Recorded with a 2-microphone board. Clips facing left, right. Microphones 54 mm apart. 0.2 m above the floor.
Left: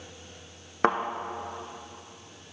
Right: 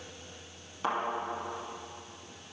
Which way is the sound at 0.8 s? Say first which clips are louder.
Left 7 dB; 75° left (ahead or behind).